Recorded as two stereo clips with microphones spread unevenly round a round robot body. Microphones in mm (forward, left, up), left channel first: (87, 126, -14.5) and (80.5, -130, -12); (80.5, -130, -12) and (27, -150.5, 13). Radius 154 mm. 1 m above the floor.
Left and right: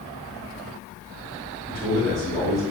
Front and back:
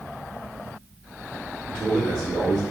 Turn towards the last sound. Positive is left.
turn(degrees=180)